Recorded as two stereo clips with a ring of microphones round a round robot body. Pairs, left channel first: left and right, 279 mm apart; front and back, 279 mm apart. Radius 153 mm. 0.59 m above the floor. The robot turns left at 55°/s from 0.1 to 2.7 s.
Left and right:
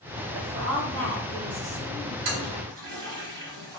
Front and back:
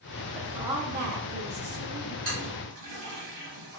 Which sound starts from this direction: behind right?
A toilet flushing, at 2.2 s.